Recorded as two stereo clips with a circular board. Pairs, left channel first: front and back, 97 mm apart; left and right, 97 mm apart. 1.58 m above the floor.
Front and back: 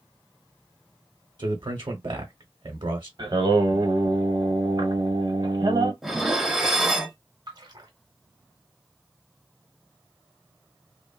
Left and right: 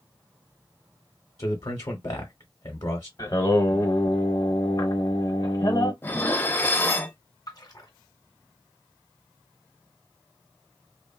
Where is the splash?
135° left, 0.9 m.